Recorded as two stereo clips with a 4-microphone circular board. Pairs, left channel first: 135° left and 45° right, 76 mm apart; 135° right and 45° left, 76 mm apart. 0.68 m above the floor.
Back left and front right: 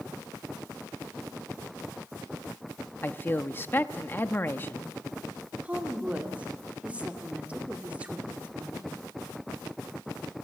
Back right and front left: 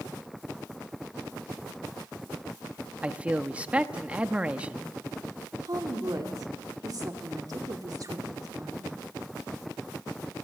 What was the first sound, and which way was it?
A man speaking, 105° left.